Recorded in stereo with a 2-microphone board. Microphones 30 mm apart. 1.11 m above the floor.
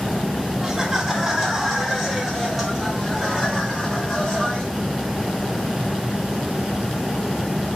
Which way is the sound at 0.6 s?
15° right (ahead or behind).